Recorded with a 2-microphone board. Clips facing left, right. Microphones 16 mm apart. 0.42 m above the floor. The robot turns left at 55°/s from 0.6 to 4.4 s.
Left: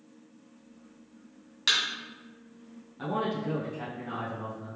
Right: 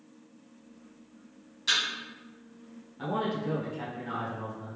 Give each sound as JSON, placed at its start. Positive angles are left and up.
{"t": 1.7, "sound": "a thud", "side_deg": 55, "distance_m": 1.6}
{"t": 3.0, "sound": "a man speaking", "azimuth_deg": 5, "distance_m": 1.0}